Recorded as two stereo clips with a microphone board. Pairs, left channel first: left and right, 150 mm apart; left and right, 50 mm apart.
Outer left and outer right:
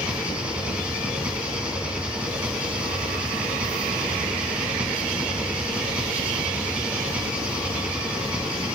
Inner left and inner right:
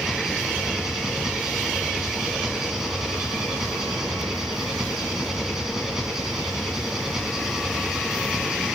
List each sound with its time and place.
0.0 s an engine running: 10° right (ahead or behind), 3 m